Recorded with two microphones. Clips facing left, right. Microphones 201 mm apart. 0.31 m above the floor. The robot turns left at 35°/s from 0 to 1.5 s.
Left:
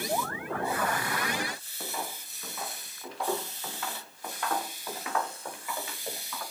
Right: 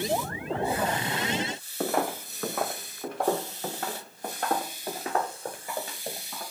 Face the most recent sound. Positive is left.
turn(degrees=-35)  # may be behind; listen again after turning